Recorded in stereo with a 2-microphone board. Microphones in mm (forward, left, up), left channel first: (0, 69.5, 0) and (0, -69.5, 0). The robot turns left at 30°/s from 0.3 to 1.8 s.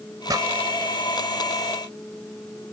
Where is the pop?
25° right (ahead or behind); by 0.5 s 30° right (ahead or behind).